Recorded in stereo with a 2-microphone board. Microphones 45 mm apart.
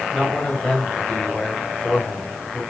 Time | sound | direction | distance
0.1 | a man speaking | 5° left (ahead or behind) | 1.9 m